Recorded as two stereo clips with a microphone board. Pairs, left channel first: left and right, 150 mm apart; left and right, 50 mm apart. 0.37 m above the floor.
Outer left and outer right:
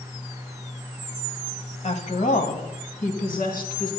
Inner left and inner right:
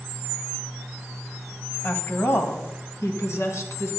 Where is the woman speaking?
45° left (ahead or behind), 1.8 m; by 3.9 s 75° left (ahead or behind), 4 m.